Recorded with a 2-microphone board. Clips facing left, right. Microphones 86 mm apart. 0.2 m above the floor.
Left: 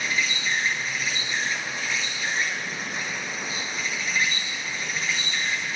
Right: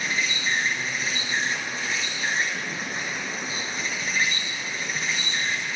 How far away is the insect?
About 1.4 m.